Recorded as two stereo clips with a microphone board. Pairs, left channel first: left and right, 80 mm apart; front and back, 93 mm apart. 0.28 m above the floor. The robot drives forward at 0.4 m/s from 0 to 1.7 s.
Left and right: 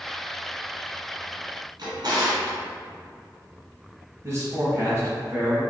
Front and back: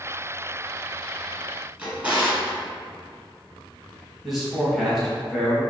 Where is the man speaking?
90° right, 1.1 m.